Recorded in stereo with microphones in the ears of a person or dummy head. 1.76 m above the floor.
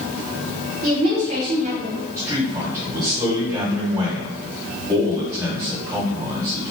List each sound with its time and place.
0.8 s a woman speaking: 50° right (ahead or behind), 1.3 m
2.2 s a man speaking: 20° right (ahead or behind), 1.7 m